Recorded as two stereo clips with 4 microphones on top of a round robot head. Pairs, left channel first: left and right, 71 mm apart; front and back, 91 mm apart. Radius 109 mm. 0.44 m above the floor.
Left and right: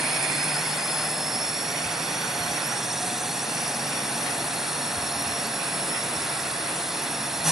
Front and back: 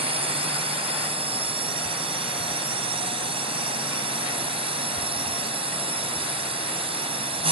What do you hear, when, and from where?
0.0 s a drone: 175° right